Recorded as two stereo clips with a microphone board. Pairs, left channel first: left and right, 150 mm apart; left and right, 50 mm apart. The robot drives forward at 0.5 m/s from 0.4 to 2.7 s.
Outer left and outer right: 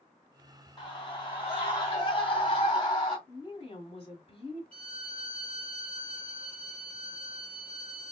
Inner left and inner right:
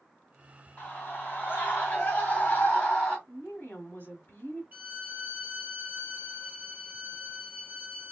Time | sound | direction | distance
0.8 | a scream | 35° left (ahead or behind) | 1.9 m
3.3 | a woman speaking | 40° left (ahead or behind) | 1.4 m
4.7 | a violin | 35° right (ahead or behind) | 2 m